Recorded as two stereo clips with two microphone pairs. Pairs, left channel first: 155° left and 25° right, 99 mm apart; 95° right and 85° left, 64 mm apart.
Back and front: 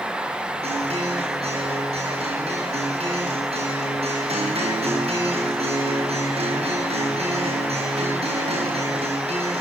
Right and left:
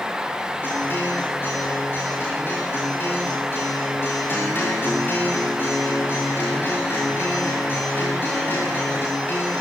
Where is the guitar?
40° right, 10 m.